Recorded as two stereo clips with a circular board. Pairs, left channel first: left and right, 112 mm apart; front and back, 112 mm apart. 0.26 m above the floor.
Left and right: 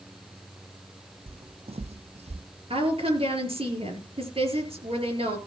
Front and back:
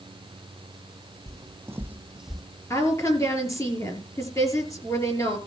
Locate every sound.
1.3 s footsteps: 120° right, 1.0 m; by 2.4 s 85° right, 0.7 m
2.7 s a woman speaking: 65° right, 4.5 m